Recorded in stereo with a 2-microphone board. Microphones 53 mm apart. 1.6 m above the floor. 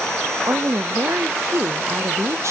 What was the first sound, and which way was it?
A woman speaking, 60° right (ahead or behind).